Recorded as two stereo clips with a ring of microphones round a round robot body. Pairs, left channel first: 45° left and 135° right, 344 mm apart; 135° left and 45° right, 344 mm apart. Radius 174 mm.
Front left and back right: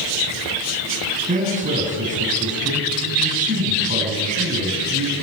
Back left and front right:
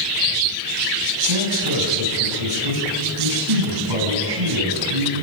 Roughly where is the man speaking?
Ahead right.